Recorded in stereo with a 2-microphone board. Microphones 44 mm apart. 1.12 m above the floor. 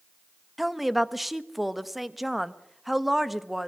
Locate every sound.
0.6 s a woman speaking: 5° right (ahead or behind), 1.1 m